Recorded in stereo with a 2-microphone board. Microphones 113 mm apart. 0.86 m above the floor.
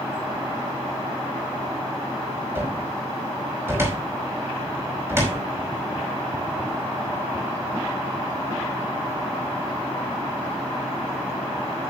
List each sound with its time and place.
2.5 s a cupboard door: 20° right (ahead or behind), 5 m